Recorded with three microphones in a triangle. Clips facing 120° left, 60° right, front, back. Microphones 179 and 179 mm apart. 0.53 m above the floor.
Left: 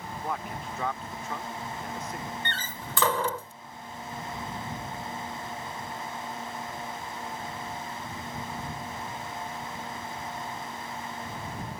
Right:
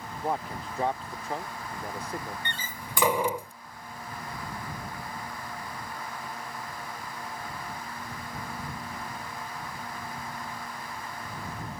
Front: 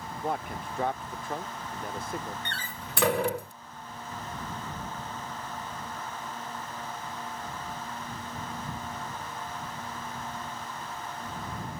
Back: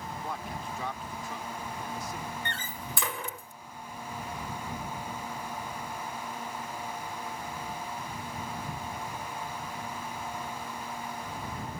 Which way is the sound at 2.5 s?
15° left.